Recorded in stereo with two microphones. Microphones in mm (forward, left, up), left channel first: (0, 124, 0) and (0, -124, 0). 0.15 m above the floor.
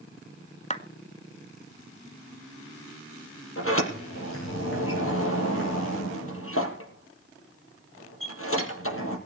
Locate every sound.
0.7 s a clap: 25° left (ahead or behind), 1.8 m
3.6 s a sliding door: 60° left (ahead or behind), 6 m